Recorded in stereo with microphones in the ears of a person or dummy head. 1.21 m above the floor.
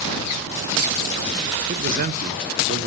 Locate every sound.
1.7 s a man speaking: 40° right (ahead or behind), 0.5 m